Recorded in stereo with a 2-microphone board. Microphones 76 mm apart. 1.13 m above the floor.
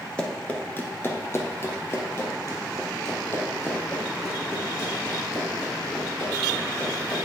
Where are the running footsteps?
15° left (ahead or behind), 1.2 m; by 7.2 s 30° left (ahead or behind), 6.5 m.